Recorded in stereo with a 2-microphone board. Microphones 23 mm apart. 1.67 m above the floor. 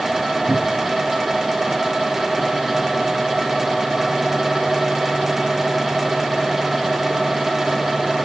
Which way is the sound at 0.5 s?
65° right (ahead or behind).